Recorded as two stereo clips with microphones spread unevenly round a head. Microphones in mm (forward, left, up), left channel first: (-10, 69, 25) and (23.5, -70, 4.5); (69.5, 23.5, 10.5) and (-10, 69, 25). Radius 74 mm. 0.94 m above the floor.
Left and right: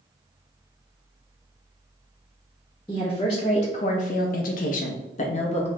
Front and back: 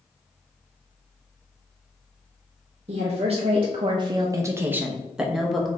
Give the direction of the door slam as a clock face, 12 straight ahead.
I don't hear a door slam.